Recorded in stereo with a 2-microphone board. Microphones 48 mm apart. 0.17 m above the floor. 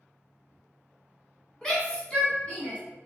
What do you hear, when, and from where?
1.6 s a shout: 15° left (ahead or behind), 1.7 m; by 2.8 s 25° left (ahead or behind), 1.7 m